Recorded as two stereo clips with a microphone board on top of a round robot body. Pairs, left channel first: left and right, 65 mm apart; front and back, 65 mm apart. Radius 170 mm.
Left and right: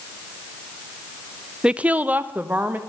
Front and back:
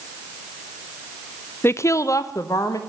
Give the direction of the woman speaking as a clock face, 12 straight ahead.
1 o'clock.